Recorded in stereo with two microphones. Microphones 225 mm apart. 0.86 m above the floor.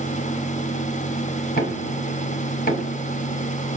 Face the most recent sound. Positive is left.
turn(degrees=40)  # may be behind; listen again after turning